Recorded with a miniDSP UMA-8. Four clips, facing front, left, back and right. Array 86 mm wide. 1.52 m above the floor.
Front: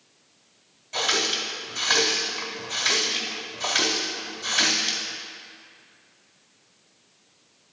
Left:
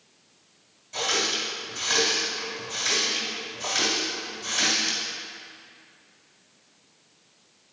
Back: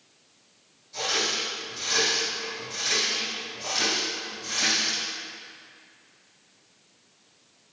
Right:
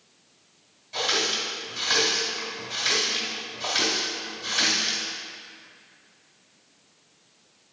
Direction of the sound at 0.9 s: 10° right.